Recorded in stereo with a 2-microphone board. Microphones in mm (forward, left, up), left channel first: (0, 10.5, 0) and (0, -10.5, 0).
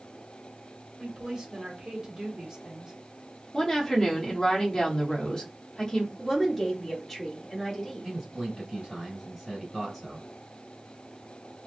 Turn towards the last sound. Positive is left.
turn(degrees=-10)  # may be behind; listen again after turning